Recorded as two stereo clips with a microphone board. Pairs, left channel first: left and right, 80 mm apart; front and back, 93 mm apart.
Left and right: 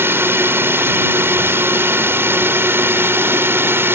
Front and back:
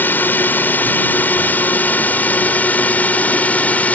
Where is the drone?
55° right; by 4.0 s 60° right.